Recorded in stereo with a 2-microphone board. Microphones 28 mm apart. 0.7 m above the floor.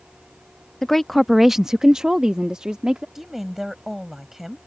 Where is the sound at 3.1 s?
10° right (ahead or behind).